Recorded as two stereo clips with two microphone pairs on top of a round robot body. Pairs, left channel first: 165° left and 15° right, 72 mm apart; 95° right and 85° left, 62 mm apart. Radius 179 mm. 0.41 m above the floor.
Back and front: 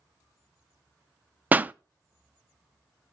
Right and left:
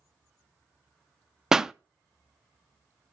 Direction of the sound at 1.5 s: 20° left.